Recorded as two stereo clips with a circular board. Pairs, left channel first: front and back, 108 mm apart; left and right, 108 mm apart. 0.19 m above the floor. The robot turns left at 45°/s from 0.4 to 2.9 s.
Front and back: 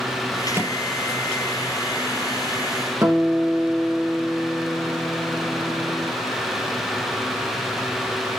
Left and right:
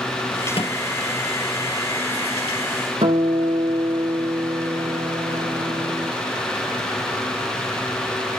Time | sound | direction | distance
0.5 | a microwave | 115° left | 3 m
3.0 | a guitar | 115° right | 5 m